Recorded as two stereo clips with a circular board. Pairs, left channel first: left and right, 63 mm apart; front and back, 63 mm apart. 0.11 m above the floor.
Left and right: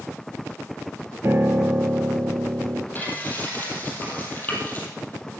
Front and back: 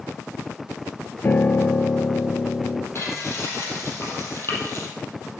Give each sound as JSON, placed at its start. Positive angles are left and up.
{"t": 1.2, "sound": "a piano", "azimuth_deg": -50, "distance_m": 0.6}
{"t": 3.0, "sound": "frying", "azimuth_deg": 35, "distance_m": 3.5}